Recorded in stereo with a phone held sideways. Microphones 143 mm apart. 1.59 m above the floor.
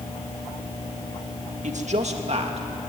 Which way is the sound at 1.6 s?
65° right (ahead or behind).